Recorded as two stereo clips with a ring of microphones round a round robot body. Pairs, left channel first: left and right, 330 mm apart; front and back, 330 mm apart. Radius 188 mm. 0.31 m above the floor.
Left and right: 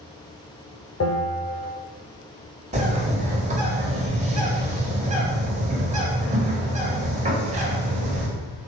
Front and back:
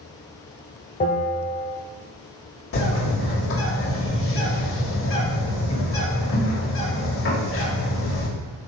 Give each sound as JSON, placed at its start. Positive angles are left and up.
{"t": 1.0, "sound": "a bell", "azimuth_deg": 60, "distance_m": 1.5}
{"t": 2.7, "sound": "a bird", "azimuth_deg": -30, "distance_m": 2.0}